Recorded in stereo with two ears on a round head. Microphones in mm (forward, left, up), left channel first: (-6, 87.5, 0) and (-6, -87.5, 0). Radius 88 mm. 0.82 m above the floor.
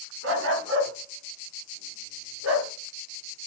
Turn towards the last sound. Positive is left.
turn(degrees=-85)